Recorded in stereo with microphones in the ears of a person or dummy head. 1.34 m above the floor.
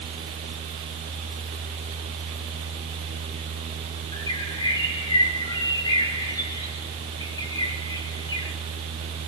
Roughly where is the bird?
Left.